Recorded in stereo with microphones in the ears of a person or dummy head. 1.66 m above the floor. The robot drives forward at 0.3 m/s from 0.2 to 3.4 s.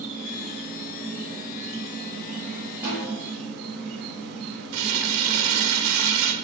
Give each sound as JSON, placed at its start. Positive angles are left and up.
{"t": 0.0, "sound": "an insect", "side_deg": -35, "distance_m": 1.7}
{"t": 2.8, "sound": "a snare drum", "side_deg": -10, "distance_m": 1.5}
{"t": 4.7, "sound": "crumpling", "side_deg": -65, "distance_m": 0.6}